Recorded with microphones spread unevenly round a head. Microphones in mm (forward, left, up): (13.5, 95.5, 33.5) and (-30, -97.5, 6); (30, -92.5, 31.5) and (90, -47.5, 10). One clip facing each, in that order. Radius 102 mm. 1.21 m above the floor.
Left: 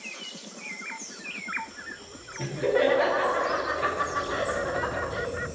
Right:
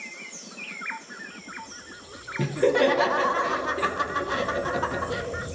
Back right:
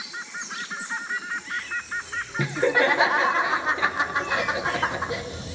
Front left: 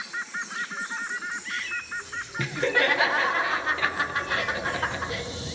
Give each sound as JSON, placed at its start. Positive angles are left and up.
{"t": 2.4, "sound": "laughter", "azimuth_deg": -70, "distance_m": 0.9}